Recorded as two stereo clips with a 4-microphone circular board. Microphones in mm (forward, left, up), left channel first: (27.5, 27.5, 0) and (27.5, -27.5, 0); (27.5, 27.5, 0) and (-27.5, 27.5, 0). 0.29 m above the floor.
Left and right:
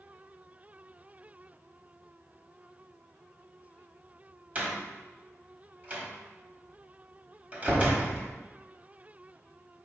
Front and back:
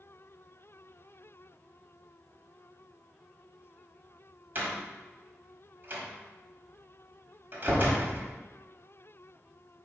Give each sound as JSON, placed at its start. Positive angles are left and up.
{"t": 4.5, "sound": "a door slam", "azimuth_deg": -145, "distance_m": 1.2}